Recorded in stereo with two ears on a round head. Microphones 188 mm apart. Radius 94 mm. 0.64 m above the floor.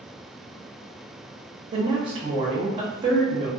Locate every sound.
1.7 s a woman speaking: 25° right (ahead or behind), 0.9 m